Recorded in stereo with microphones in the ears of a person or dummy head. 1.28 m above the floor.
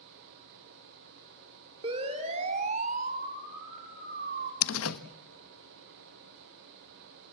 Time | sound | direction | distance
1.8 | a siren | 30° right (ahead or behind) | 3 m
4.6 | a door slam | 80° left | 1.2 m